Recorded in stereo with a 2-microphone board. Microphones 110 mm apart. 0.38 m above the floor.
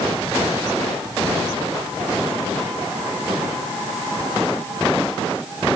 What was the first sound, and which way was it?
Only background noise.